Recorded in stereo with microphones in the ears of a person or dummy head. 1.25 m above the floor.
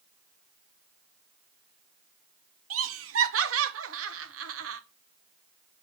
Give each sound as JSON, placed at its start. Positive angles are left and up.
{"t": 2.7, "sound": "laughter", "side_deg": -70, "distance_m": 0.8}